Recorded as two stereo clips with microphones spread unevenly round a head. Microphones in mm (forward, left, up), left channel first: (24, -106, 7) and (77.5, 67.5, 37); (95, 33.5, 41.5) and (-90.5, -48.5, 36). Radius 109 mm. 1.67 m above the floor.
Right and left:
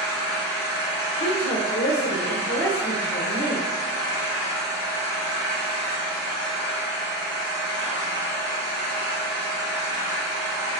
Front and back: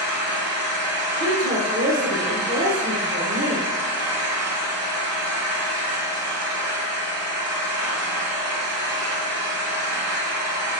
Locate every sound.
0.0 s an engine running: 135° right, 1.2 m
1.2 s a woman speaking: 120° right, 0.7 m